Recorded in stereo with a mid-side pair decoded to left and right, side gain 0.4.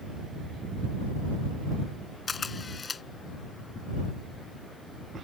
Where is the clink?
I don't hear a clink.